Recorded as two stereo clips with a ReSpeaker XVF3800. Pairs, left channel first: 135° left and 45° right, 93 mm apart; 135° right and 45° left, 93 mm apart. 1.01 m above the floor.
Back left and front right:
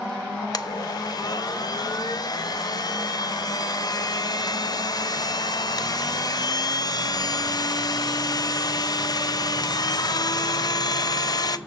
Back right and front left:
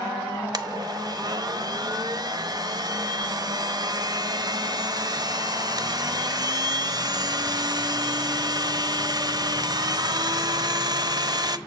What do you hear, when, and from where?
0.5 s a blender: 90° left, 0.5 m